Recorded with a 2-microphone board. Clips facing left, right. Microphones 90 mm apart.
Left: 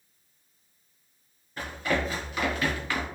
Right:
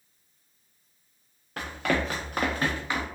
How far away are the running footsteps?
About 1.0 m.